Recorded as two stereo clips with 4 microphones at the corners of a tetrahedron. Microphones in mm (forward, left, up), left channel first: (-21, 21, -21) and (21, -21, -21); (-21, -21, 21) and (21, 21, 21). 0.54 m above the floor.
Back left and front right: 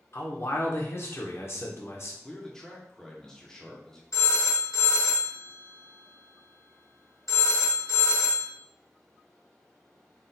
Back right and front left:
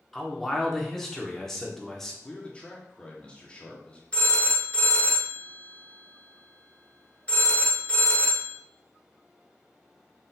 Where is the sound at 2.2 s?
160° right, 0.8 m.